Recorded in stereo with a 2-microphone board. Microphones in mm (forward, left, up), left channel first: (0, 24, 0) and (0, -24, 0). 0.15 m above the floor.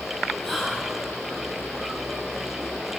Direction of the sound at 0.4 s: 5° left (ahead or behind).